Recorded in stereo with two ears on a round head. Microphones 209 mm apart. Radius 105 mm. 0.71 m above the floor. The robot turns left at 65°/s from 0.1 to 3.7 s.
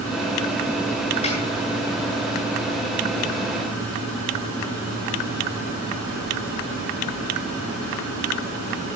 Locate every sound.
1.2 s a snare drum: 30° left (ahead or behind), 9.5 m; by 1.4 s 35° left (ahead or behind), 9.5 m